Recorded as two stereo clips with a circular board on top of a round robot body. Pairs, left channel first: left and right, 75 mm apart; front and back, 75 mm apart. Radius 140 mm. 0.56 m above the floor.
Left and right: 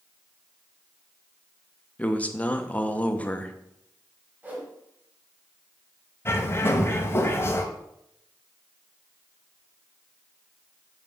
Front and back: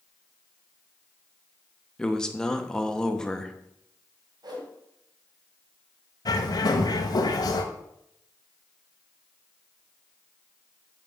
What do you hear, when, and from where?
2.0 s a man speaking: 65° left, 1.2 m
4.4 s a whoosh: 160° right, 2.5 m
6.2 s a bird: 30° left, 0.9 m